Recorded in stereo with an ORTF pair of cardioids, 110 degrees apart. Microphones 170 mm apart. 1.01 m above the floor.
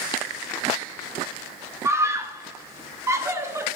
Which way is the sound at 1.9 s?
15° right.